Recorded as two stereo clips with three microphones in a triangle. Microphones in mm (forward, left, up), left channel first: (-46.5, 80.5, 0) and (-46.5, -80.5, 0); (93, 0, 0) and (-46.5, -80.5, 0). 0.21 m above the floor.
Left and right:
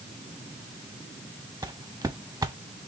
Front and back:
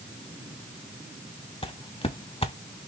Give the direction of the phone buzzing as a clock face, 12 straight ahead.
I don't hear a phone buzzing.